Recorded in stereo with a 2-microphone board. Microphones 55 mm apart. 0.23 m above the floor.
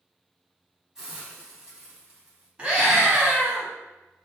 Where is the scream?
20° right (ahead or behind), 1.4 m.